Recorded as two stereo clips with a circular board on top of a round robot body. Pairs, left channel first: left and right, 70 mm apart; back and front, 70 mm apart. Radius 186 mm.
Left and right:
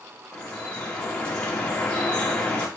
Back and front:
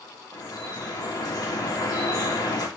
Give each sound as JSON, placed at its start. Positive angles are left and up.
{"t": 0.3, "sound": "dripping", "azimuth_deg": 165, "distance_m": 2.5}